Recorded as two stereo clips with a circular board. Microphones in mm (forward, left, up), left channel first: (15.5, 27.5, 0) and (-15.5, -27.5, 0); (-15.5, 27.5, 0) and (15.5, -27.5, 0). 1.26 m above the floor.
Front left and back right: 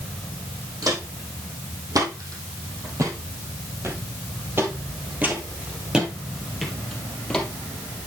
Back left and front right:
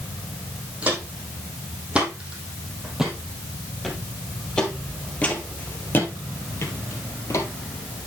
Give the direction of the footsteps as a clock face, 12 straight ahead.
4 o'clock.